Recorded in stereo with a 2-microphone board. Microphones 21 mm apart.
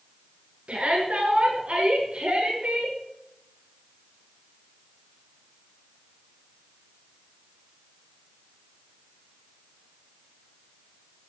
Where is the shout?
75° right (ahead or behind), 8 m; by 3.0 s 60° right (ahead or behind), 8.5 m.